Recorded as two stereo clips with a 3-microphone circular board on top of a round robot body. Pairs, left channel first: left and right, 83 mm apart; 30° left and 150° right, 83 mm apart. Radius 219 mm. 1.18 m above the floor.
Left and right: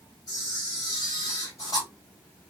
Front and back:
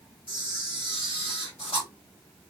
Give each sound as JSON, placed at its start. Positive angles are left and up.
{"t": 0.3, "sound": "a camera shutter", "azimuth_deg": 40, "distance_m": 1.0}